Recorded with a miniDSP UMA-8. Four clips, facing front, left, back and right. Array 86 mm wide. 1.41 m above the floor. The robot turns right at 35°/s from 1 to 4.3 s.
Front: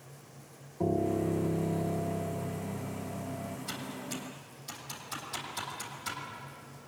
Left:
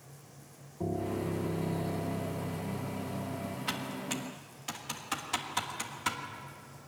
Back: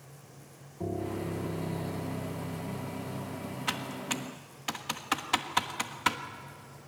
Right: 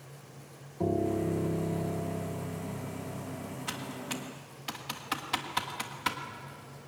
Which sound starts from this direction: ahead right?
A piano, at 0.8 s.